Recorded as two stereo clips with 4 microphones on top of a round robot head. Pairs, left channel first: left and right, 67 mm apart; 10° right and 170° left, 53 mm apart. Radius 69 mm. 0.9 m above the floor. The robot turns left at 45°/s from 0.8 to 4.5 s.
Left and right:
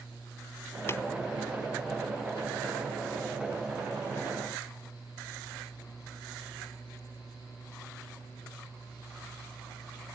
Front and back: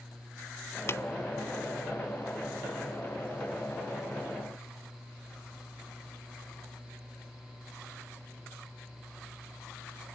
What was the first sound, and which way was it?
Tapping, 30° left.